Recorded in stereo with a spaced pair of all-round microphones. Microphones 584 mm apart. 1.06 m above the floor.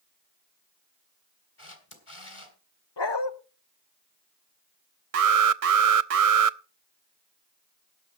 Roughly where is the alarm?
Right.